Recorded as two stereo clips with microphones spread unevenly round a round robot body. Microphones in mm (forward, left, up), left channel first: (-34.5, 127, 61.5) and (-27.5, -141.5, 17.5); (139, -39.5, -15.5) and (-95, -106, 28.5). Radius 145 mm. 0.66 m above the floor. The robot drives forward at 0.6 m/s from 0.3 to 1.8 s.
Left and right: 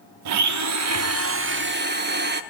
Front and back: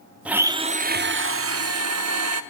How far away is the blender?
About 0.7 m.